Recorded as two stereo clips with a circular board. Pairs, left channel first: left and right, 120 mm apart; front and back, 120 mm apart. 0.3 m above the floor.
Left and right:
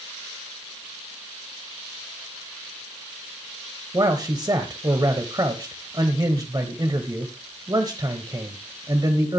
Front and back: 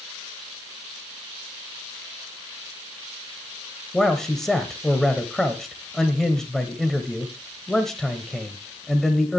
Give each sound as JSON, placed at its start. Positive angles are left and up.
{"t": 3.9, "sound": "a man speaking", "azimuth_deg": -85, "distance_m": 1.1}